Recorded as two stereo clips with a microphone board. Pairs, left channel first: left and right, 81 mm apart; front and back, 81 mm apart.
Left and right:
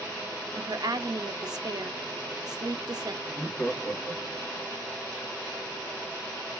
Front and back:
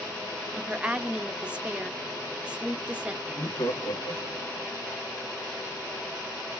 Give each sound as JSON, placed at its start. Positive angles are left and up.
{"t": 0.5, "sound": "a woman speaking", "azimuth_deg": -105, "distance_m": 0.6}
{"t": 3.2, "sound": "laughter", "azimuth_deg": 20, "distance_m": 1.4}